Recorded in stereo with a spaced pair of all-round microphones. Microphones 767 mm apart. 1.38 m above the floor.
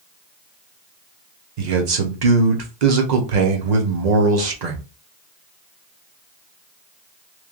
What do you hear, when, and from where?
1.6 s a man speaking: 65° right (ahead or behind), 0.9 m